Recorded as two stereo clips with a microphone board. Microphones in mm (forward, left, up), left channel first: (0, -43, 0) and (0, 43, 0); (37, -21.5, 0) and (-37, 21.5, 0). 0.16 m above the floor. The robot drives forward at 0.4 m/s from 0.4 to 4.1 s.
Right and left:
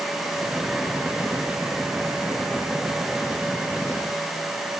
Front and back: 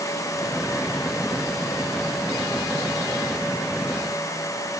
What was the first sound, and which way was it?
Only background noise.